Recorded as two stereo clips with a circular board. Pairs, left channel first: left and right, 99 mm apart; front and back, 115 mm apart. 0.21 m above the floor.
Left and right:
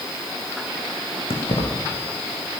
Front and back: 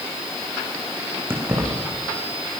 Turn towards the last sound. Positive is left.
turn(degrees=110)